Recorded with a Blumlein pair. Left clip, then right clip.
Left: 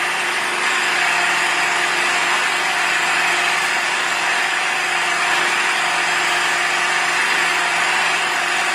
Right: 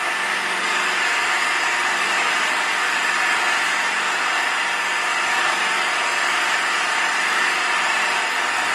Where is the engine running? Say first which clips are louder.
Left 2 dB; 40° left, 0.9 m.